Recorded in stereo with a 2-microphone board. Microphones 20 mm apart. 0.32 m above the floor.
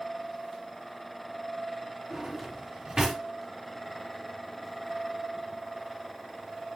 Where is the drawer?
30° right (ahead or behind), 2.5 m.